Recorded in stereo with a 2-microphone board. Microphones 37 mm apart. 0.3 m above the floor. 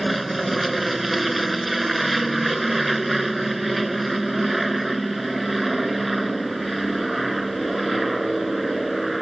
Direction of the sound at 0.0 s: Centre (ahead or behind).